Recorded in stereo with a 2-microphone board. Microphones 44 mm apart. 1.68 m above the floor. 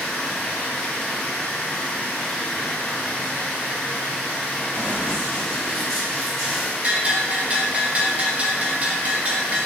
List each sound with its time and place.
0.0 s running water: 15° left (ahead or behind), 1.2 m
4.7 s running footsteps: 30° left (ahead or behind), 2.0 m; by 6.7 s 10° right (ahead or behind), 1.6 m
6.8 s a bell: 35° right (ahead or behind), 0.5 m